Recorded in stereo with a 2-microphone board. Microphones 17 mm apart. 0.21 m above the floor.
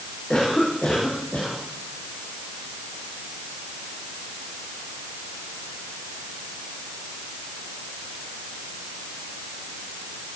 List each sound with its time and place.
0.3 s a cough: 35° left (ahead or behind), 10 m